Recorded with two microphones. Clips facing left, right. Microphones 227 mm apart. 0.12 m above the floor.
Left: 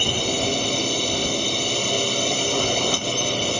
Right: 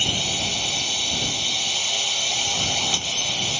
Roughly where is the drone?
Left.